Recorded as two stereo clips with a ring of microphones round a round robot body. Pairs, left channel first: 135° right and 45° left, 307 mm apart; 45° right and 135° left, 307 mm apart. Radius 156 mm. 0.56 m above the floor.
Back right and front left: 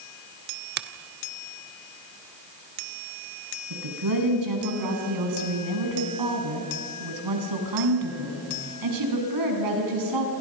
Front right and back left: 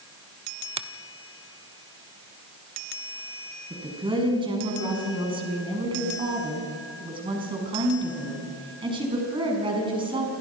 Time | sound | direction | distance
0.8 | a finger snap | 75° left | 1.0 m
3.7 | a woman speaking | 60° left | 5.5 m